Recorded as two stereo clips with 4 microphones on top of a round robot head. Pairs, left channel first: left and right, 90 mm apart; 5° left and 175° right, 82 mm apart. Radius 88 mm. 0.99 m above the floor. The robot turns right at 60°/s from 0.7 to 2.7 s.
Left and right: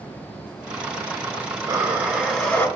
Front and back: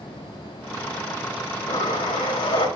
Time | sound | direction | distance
1.7 | breathing | 45° right | 3.5 m